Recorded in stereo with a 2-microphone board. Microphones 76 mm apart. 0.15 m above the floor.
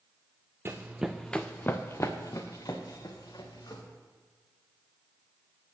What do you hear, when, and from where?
0.7 s running footsteps: 30° right (ahead or behind), 0.7 m; by 3.8 s 60° left (ahead or behind), 2 m